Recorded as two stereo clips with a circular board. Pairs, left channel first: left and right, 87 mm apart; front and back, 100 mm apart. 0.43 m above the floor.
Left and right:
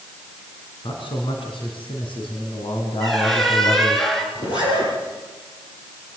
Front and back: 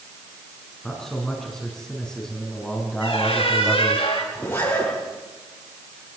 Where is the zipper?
65° left, 9 m.